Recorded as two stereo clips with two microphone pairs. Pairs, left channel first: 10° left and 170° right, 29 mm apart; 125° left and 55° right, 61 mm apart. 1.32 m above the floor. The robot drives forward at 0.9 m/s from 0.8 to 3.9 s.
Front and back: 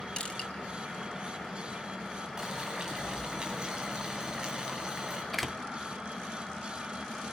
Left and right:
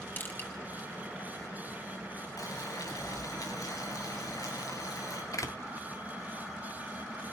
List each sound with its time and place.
0.2 s crushing: 65° left, 5 m
2.4 s boiling: 120° left, 8 m; by 5.2 s 130° left, 9 m
5.3 s a door slam: 100° left, 1.8 m